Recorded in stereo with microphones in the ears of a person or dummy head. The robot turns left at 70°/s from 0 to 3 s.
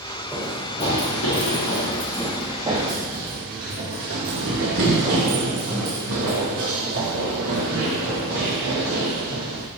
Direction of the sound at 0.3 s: 10° right (ahead or behind).